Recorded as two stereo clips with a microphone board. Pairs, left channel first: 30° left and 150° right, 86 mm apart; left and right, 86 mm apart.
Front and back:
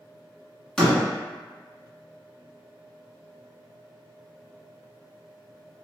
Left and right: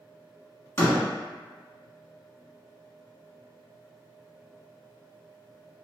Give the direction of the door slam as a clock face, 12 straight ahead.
8 o'clock.